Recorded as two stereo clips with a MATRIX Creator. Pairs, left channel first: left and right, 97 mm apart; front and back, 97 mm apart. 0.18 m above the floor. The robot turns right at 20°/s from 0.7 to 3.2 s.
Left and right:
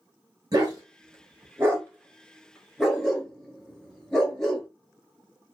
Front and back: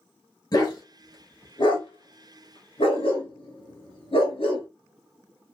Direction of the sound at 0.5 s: 45° right.